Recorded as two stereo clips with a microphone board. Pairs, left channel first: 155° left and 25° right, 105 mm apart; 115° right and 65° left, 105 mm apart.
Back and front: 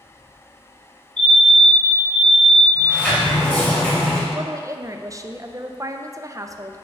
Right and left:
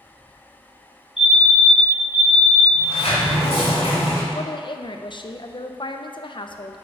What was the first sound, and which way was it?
A fire alarm, 125° right.